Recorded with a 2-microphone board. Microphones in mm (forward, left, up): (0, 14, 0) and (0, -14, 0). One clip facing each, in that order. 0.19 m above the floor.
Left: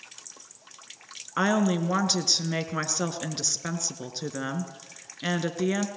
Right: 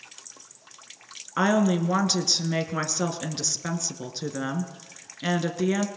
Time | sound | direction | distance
1.4 | a woman speaking | 5° left (ahead or behind) | 2 m